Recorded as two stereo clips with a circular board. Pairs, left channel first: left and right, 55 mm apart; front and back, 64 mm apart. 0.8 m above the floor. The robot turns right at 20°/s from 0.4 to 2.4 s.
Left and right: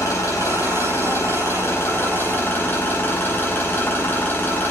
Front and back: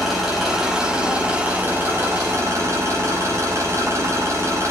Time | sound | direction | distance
0.0 | an engine running | 95° left | 5.5 m